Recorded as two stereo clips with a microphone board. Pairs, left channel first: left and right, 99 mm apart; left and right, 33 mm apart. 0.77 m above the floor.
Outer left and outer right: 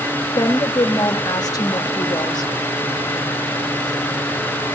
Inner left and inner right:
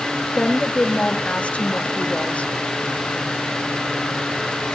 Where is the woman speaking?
40° left (ahead or behind), 1.3 m.